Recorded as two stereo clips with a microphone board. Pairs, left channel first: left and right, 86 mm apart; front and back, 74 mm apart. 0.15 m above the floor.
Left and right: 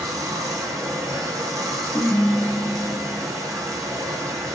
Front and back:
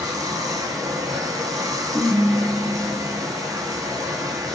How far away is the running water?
About 0.7 m.